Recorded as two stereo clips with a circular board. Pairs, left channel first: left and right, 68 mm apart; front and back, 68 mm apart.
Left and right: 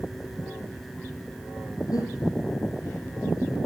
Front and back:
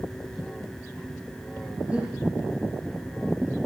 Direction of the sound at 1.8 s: 110° left.